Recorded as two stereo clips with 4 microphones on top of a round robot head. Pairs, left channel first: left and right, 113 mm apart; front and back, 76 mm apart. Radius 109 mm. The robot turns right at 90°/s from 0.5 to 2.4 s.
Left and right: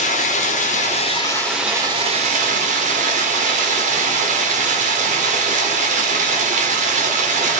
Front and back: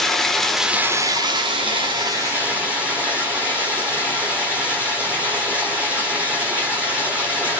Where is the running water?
85° left, 1.7 m; by 7.6 s 105° right, 1.7 m.